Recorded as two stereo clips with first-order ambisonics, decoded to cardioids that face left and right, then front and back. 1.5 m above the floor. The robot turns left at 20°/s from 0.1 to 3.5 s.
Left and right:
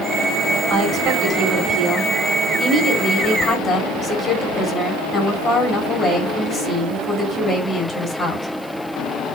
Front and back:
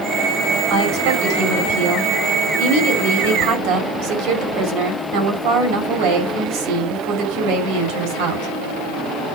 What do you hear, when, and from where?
0.7 s a woman speaking: 135° right, 4.5 m; by 8.5 s 170° left, 4.5 m